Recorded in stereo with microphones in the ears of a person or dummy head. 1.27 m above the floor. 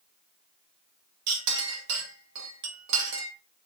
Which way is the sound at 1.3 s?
55° right (ahead or behind).